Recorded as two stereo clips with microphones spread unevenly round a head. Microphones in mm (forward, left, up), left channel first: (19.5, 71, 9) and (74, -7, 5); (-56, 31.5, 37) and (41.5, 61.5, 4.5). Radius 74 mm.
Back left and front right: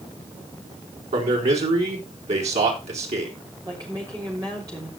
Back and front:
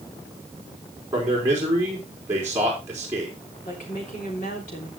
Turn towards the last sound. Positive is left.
turn(degrees=-125)